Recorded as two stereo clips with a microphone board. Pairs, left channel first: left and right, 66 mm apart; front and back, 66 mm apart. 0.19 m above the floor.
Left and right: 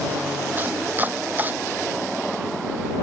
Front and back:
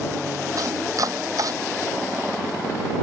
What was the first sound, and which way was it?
Chopping, 150° right.